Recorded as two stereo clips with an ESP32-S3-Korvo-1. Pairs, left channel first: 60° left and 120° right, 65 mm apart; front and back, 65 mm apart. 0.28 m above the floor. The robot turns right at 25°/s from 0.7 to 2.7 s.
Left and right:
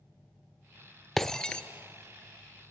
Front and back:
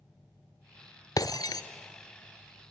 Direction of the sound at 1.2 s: 25° right.